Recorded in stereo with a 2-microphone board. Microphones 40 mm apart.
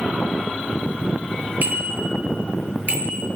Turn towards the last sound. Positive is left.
turn(degrees=-45)  # may be behind; listen again after turning